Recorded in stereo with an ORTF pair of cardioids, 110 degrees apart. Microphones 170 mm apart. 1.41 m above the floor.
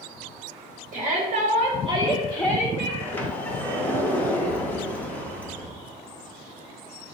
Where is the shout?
60° right, 1.1 m; by 2.9 s 25° left, 0.8 m.